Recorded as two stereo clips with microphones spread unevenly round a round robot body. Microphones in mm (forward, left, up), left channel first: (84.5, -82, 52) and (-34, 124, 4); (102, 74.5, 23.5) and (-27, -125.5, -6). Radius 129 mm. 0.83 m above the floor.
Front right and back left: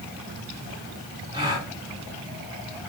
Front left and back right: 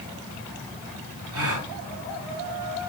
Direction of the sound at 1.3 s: 165° right.